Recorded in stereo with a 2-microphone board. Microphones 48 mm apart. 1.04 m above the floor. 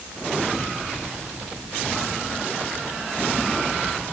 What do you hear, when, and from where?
Only background noise.